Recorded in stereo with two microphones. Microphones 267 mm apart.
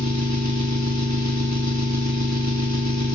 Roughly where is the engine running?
Right.